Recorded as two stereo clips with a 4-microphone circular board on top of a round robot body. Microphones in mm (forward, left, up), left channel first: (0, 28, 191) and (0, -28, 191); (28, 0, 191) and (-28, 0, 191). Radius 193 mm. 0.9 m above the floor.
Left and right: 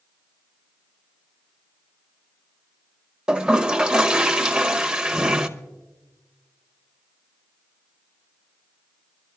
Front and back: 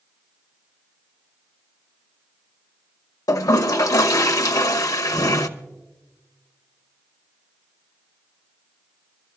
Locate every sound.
3.3 s a toilet flushing: 10° right, 0.8 m